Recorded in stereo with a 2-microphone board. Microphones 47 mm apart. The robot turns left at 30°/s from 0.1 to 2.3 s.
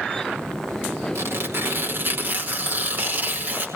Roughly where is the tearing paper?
Right.